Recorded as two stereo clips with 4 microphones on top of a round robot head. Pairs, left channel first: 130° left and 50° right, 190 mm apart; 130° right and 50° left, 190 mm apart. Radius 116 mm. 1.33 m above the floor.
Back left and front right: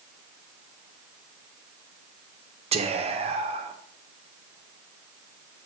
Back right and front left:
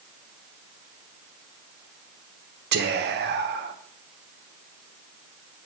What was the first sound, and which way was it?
Whispering, 10° left.